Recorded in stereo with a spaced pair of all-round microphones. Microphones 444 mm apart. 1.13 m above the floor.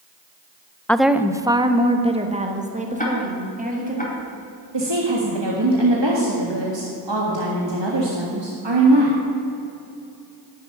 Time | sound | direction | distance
0.9 | a woman speaking | 5° left (ahead or behind) | 0.5 m
3.0 | ticking | 20° left (ahead or behind) | 2.5 m
4.7 | a woman speaking | 85° right | 1.8 m